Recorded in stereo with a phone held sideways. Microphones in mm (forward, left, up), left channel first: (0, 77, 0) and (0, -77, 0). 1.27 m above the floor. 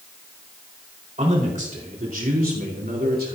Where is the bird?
No bird in this recording.